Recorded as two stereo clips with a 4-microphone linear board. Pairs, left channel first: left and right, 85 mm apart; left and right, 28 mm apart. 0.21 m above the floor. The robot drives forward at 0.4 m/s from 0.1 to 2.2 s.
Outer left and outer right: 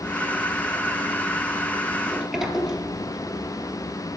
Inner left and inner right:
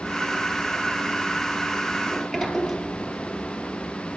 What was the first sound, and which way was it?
A sliding door, 5° right (ahead or behind).